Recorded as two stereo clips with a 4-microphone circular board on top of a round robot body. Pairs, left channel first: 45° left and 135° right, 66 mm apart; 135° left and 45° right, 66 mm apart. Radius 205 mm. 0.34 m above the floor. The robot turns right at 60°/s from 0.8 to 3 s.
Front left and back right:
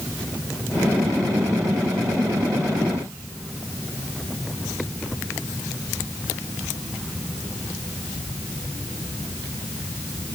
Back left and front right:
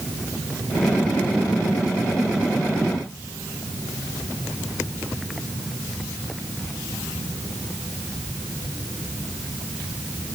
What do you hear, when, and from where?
Only background noise.